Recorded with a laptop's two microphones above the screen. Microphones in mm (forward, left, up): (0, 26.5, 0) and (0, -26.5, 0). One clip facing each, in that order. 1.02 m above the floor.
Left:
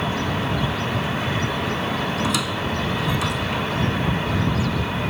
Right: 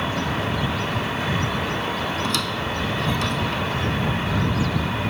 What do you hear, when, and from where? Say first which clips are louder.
2.2 s a squeak: left 1 dB; 10° left (ahead or behind)